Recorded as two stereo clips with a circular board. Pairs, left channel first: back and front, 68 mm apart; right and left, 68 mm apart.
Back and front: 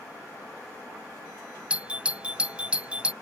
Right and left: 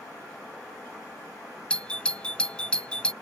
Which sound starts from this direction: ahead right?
A doorbell, at 1.7 s.